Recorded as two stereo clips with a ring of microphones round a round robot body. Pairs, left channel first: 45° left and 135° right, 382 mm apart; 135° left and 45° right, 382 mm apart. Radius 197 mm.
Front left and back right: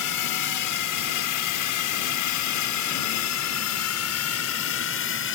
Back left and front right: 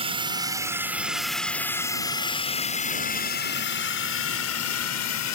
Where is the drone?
25° left; by 5.4 s 100° left.